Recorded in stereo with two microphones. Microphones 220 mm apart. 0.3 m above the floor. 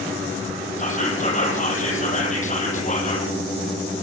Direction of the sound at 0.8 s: 35° left (ahead or behind).